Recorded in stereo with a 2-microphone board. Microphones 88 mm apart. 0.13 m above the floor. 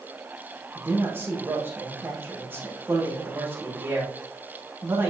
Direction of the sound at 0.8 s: 25° right (ahead or behind).